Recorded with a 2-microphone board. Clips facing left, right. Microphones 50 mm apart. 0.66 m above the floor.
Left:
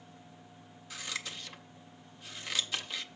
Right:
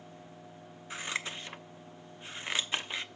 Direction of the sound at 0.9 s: 30° right (ahead or behind).